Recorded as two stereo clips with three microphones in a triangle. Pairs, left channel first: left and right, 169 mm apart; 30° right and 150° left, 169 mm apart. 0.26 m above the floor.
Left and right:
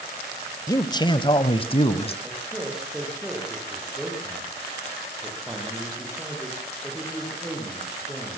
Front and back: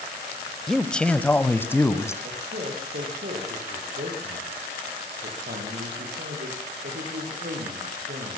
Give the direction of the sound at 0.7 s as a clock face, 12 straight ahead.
10 o'clock.